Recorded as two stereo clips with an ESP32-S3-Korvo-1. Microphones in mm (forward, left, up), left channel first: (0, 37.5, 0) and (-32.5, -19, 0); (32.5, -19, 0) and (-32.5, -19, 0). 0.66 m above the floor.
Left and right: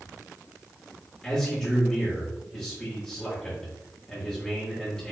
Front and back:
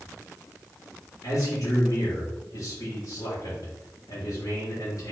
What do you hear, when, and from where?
1.2 s a man speaking: 20° right, 1.7 m